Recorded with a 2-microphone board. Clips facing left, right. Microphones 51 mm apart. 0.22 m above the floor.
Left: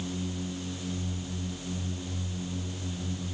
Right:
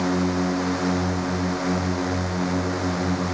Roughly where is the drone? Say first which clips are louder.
Right 13 dB; right.